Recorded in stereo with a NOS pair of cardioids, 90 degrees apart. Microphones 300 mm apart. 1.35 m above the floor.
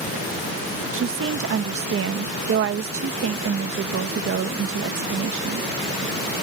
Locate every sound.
0.9 s a woman speaking: 45° right